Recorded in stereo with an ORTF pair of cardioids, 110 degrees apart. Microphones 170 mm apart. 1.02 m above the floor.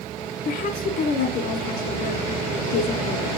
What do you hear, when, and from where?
0.5 s a woman speaking: 55° left, 3 m